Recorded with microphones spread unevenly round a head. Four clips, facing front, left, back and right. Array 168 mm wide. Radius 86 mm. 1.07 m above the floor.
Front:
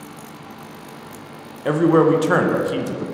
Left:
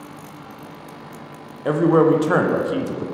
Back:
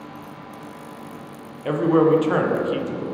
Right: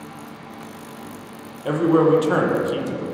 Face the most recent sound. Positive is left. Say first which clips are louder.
# left 1 dB, front 2 dB
turn(degrees=30)